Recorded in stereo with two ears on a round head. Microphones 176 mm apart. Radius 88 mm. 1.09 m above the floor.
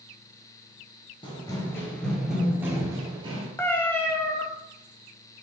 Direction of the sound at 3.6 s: 10° left (ahead or behind).